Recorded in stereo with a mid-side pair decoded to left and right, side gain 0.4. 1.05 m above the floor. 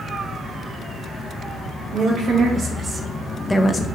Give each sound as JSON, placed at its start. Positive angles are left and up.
{"t": 1.9, "sound": "a woman speaking", "azimuth_deg": -70, "distance_m": 1.1}